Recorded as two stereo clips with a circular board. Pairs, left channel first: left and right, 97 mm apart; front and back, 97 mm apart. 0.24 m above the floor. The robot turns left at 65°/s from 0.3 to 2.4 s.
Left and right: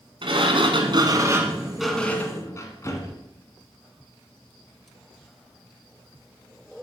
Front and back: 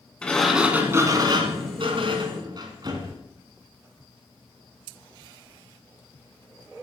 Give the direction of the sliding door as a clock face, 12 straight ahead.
3 o'clock.